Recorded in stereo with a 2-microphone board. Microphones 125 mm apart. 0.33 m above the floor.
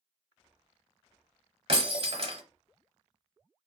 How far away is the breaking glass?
About 1.1 m.